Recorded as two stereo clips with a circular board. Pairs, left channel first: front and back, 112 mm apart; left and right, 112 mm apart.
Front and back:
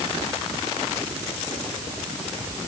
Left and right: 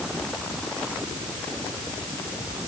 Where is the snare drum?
I don't hear a snare drum.